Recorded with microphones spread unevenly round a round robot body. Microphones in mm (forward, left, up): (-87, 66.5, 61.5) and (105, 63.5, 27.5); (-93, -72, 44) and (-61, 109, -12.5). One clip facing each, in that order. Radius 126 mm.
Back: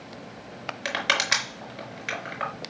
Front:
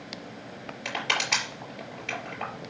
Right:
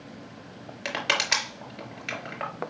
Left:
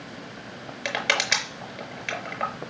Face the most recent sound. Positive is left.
turn(degrees=165)